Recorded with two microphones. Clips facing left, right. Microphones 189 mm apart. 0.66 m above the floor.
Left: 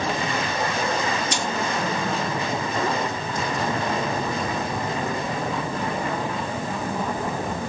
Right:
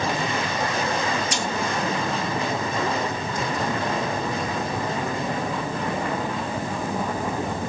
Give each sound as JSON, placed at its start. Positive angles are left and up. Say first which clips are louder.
{"t": 1.3, "sound": "cutlery clinking", "louder": "even", "side_deg": 25, "distance_m": 2.5}